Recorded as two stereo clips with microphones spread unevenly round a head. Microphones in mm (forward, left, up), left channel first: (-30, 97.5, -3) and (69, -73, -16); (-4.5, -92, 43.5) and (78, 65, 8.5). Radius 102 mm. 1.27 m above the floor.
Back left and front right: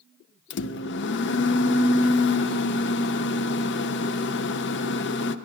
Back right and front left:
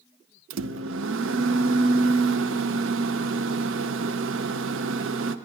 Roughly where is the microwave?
Left.